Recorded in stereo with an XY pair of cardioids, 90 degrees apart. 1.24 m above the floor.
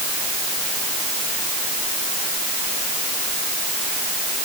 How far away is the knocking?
No knocking in this recording.